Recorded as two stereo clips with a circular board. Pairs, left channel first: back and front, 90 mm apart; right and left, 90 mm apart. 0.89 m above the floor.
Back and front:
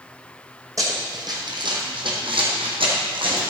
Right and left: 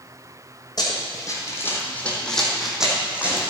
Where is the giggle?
I don't hear a giggle.